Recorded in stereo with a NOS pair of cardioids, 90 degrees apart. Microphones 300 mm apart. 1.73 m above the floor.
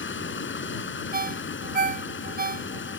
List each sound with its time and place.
0.0 s running water: 40° left
1.1 s a ringtone: 30° right